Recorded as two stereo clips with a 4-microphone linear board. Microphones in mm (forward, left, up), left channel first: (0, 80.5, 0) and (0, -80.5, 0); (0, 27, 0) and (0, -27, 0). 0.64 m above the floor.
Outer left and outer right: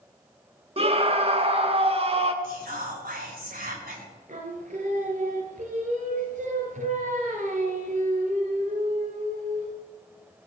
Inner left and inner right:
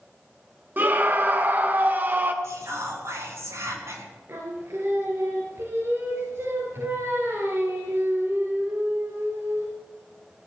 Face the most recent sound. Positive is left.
turn(degrees=-55)  # may be behind; listen again after turning